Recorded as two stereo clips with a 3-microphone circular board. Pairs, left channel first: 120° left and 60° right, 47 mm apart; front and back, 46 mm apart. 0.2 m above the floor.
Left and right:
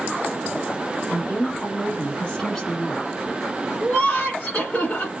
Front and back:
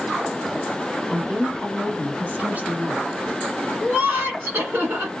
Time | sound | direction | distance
1.1 | a woman speaking | 135° left | 1.4 m
3.8 | laughter | 170° left | 1.3 m